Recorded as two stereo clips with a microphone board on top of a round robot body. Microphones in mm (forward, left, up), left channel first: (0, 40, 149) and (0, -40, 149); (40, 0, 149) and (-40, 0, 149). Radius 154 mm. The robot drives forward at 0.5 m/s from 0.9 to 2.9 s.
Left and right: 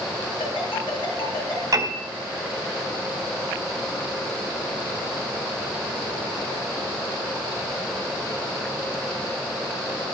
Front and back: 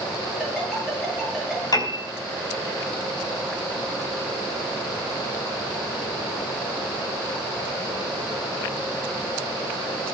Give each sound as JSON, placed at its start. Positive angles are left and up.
{"t": 0.4, "sound": "a ringtone", "azimuth_deg": 95, "distance_m": 9.5}
{"t": 1.7, "sound": "a piano", "azimuth_deg": -40, "distance_m": 5.0}